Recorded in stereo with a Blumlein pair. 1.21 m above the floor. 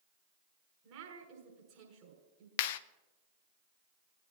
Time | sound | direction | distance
0.8 | a woman speaking | 40° right | 7 m
2.6 | a clap | 50° left | 0.6 m